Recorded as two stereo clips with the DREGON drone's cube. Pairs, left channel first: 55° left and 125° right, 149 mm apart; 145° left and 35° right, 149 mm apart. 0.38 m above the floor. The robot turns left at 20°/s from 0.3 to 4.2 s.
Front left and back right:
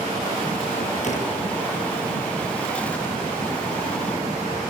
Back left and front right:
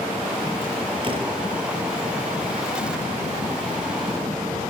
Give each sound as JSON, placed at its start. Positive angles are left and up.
{"t": 1.0, "sound": "a door slam", "azimuth_deg": 20, "distance_m": 6.5}